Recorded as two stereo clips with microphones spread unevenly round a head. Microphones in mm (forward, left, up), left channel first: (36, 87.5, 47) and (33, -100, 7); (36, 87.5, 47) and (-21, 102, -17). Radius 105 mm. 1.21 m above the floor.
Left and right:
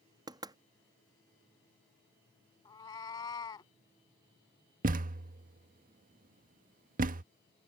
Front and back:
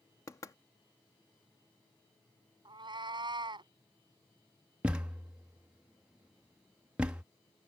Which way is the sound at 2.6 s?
115° left.